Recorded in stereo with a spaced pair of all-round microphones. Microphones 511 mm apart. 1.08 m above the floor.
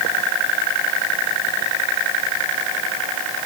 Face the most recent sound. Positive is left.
No sound to turn to.